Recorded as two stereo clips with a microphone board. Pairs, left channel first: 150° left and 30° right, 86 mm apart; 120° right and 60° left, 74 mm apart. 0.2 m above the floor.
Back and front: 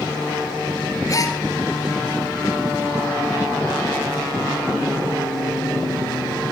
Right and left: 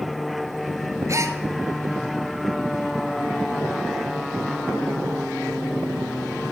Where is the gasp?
105° left, 0.9 m.